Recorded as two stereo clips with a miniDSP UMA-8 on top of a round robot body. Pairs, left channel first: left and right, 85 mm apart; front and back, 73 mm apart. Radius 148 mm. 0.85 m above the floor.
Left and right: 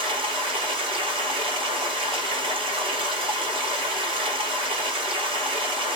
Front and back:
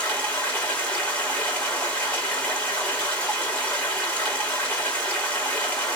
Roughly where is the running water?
Right.